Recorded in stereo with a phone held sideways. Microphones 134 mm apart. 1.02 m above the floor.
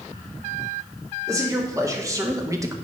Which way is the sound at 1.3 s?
25° right (ahead or behind).